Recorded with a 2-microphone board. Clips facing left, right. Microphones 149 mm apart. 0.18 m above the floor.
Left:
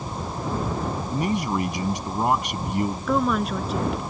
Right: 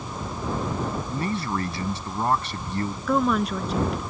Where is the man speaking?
15° left (ahead or behind).